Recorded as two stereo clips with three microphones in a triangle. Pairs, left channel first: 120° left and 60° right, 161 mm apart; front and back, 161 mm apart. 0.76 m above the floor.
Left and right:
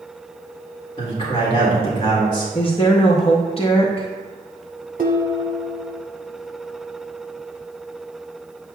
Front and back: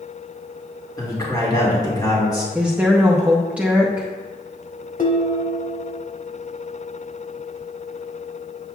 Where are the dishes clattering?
30° right, 0.9 m.